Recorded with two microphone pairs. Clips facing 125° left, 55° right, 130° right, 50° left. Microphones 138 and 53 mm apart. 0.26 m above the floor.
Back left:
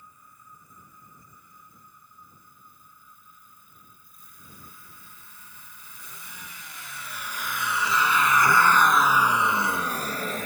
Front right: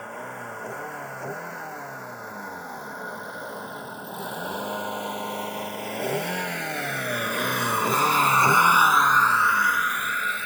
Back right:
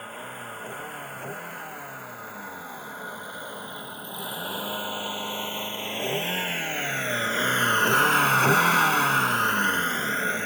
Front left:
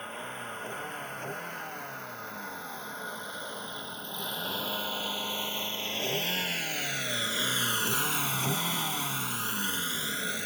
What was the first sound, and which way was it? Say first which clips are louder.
A vehicle: front right 20 dB, back right 1 dB; 45° right.